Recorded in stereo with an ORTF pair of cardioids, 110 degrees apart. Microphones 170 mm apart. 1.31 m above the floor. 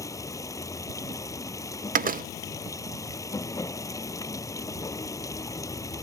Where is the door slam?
55° right.